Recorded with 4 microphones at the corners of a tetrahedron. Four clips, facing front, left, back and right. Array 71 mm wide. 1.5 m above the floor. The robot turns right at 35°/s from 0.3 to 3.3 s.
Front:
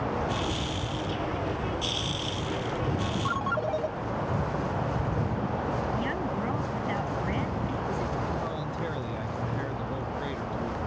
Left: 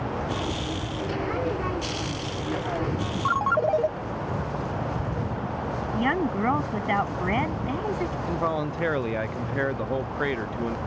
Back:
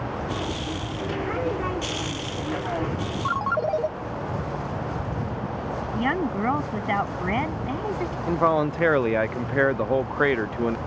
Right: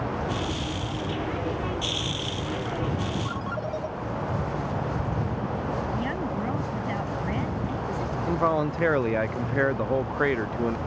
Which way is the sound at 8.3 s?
170° right.